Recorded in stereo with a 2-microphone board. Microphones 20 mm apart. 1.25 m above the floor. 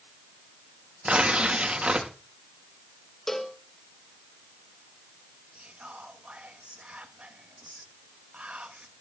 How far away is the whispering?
About 1.3 m.